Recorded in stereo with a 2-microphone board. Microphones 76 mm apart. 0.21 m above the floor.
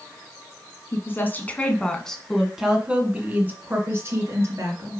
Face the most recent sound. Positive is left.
turn(degrees=-40)  # may be behind; listen again after turning